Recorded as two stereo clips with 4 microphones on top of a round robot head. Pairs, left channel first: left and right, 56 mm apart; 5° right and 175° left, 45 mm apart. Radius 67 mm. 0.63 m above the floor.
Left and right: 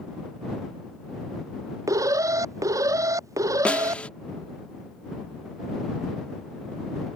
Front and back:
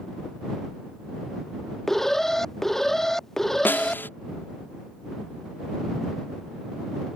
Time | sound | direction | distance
1.9 | an alarm | 85° right | ?
3.6 | a snare drum | 20° left | ?